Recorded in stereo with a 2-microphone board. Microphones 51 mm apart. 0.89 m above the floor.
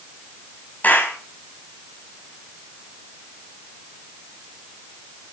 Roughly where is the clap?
Left.